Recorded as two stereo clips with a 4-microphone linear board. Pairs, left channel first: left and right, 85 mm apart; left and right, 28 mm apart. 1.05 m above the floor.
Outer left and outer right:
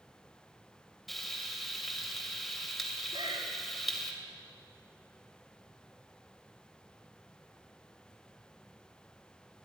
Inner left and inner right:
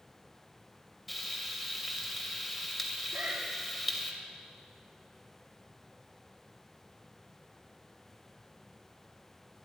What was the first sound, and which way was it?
Frying, centre (ahead or behind).